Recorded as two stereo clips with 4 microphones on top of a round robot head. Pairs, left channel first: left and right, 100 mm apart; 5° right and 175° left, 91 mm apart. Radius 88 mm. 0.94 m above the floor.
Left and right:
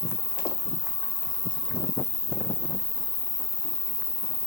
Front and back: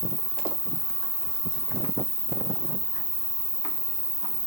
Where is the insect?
15° left, 1.8 m.